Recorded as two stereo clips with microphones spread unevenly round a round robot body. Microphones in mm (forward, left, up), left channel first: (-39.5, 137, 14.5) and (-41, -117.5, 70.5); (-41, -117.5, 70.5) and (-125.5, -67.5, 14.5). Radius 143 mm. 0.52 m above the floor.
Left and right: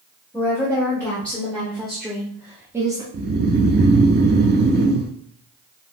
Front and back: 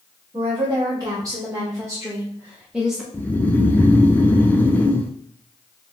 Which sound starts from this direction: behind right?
Snoring, at 3.1 s.